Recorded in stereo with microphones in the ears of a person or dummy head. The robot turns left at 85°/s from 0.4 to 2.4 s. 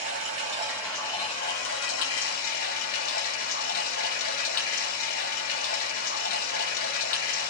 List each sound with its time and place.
0.0 s running water: 140° right, 1.5 m; by 7.5 s 50° left, 1.5 m